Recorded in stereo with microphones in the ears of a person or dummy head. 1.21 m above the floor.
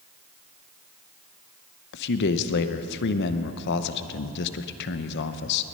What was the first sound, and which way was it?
A man speaking, 60° left (ahead or behind).